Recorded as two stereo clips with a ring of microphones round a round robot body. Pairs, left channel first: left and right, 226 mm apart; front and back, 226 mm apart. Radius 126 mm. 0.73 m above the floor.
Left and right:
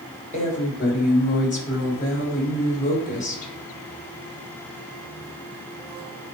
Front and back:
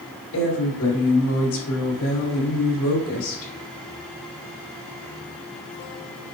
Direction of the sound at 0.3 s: 35° left.